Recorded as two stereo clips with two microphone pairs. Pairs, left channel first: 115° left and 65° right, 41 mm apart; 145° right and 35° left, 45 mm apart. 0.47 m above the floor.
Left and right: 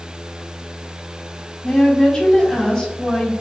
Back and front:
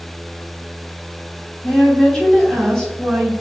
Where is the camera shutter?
I don't hear a camera shutter.